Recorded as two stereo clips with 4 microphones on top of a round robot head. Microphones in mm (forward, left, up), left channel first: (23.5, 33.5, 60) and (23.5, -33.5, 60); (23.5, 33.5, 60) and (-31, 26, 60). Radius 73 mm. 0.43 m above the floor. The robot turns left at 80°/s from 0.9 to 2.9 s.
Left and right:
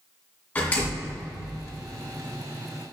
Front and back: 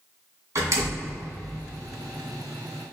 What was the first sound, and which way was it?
A door slam, 160° left.